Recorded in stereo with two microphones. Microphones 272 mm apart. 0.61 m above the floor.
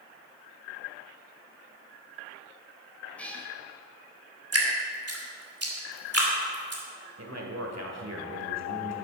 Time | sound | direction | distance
3.2 | a cat meowing | 5° left (ahead or behind) | 1.6 m
4.5 | dripping | 60° right (ahead or behind) | 2 m
7.2 | a man speaking | 70° right (ahead or behind) | 1.9 m